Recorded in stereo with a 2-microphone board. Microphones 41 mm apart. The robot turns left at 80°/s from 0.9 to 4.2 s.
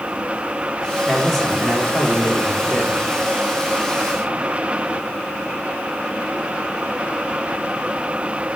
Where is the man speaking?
160° right, 2 m; by 3.0 s 45° left, 2 m.